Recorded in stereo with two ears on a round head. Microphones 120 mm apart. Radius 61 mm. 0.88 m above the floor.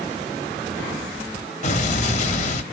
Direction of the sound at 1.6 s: 55° left (ahead or behind).